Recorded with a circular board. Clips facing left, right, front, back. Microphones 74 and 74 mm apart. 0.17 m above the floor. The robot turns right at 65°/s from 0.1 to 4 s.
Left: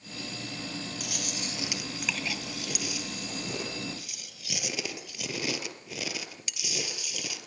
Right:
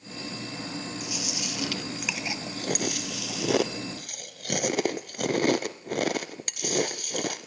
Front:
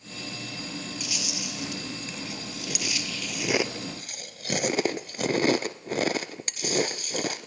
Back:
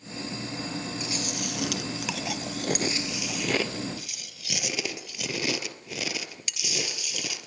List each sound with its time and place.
1.0 s chewing: 115° left, 1.1 m; by 7.5 s 50° right, 1.1 m